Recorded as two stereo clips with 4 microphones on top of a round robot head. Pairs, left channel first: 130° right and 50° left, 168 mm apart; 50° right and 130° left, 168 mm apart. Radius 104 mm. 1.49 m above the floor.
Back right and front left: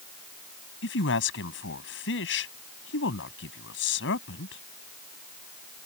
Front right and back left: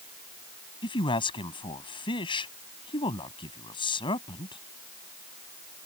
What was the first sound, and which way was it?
A man speaking, 115° right.